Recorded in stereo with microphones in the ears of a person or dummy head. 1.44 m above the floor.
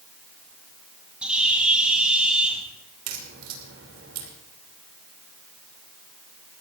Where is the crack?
75° right (ahead or behind), 3 m.